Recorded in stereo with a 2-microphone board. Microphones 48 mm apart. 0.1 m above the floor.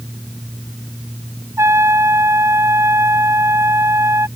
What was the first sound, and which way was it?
A trumpet, 65° right (ahead or behind).